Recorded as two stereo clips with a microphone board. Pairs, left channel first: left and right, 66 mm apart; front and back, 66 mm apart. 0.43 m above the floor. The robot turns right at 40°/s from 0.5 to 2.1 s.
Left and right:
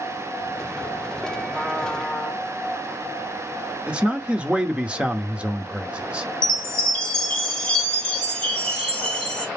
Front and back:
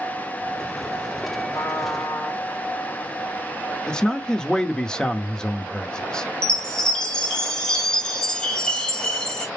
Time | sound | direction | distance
1.5 | a trumpet | 35° right | 1.8 m
3.9 | a man speaking | 55° right | 0.7 m
6.4 | a chime | 50° left | 1.3 m